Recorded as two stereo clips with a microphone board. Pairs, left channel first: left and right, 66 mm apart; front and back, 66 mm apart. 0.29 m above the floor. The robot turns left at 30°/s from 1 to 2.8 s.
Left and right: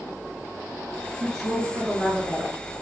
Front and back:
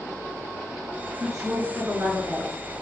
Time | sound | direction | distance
1.2 | a woman speaking | 95° right | 2.0 m